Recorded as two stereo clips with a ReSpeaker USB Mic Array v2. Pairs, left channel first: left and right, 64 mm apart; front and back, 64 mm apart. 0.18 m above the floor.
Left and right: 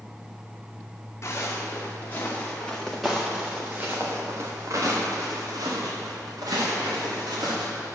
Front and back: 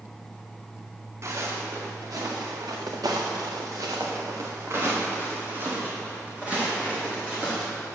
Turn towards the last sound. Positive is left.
turn(degrees=-100)